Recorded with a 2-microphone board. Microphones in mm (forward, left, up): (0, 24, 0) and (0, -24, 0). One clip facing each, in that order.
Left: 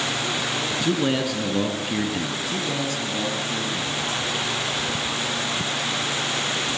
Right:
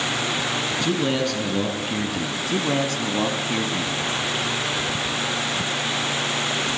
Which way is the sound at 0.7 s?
10° left (ahead or behind).